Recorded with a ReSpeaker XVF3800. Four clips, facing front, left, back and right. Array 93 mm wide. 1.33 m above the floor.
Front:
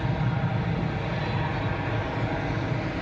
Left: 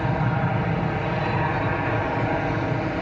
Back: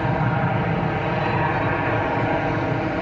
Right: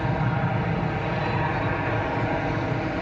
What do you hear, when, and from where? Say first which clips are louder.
0.0 s an aircraft: left 2 dB, back 7 dB; 170° left